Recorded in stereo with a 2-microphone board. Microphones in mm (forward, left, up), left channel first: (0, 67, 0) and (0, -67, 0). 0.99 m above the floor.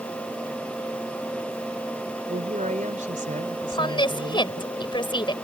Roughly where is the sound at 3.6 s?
Left.